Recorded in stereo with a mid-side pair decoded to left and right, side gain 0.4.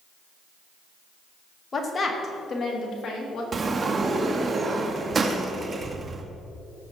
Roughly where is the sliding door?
Ahead right.